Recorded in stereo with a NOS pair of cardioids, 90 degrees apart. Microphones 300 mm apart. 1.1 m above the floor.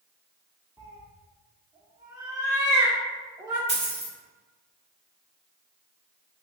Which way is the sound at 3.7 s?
25° right.